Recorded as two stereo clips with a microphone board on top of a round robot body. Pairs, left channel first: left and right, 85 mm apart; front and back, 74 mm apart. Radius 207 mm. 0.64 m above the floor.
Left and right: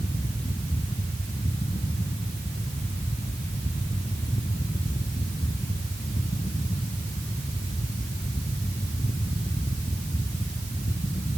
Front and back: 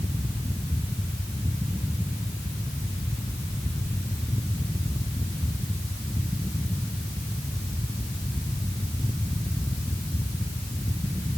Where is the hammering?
No hammering in this recording.